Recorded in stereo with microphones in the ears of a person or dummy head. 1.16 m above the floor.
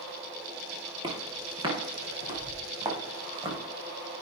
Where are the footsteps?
25° right (ahead or behind), 6 m.